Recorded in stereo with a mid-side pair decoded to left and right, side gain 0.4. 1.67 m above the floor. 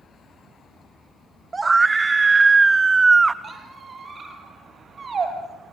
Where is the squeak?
45° right, 5 m.